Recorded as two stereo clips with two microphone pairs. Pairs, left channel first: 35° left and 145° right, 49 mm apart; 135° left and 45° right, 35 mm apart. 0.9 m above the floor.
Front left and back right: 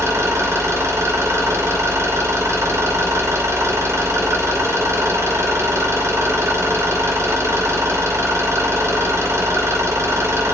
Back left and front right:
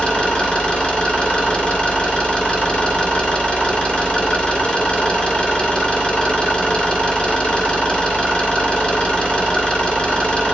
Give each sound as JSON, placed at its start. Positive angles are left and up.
{"t": 0.0, "sound": "an engine running", "azimuth_deg": -165, "distance_m": 3.0}